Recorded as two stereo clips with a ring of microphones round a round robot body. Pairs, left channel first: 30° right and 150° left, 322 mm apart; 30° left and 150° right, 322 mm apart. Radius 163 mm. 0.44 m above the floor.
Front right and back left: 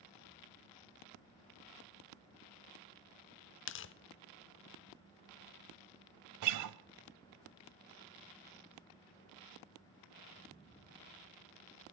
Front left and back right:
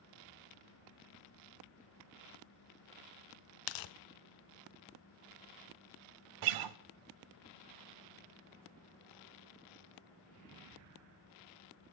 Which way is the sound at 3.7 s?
20° left.